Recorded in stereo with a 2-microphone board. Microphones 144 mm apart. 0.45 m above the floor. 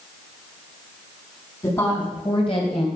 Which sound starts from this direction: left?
A woman speaking, at 1.6 s.